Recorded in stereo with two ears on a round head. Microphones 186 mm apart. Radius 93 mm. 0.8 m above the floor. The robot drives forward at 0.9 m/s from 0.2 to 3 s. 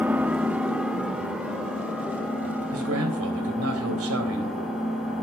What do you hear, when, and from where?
0.0 s an engine running: 5° right (ahead or behind), 0.7 m; by 5.2 s centre (ahead or behind), 3 m
2.7 s a man speaking: 75° right (ahead or behind), 3.5 m; by 4.6 s 80° right, 3.5 m